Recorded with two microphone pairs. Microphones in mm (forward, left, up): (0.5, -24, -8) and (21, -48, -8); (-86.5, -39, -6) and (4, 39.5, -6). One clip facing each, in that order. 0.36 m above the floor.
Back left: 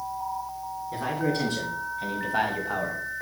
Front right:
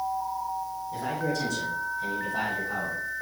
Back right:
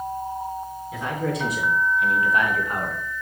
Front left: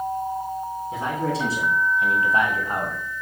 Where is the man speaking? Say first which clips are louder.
Back left 3 dB, front left 1 dB; 95° left, 3.5 m; by 3.0 s 100° left, 1.7 m.